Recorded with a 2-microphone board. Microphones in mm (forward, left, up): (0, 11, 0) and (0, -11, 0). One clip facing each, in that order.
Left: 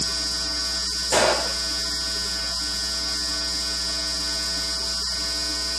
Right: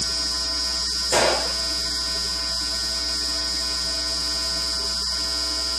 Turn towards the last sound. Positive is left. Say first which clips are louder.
# even
turn(degrees=5)  # may be behind; listen again after turning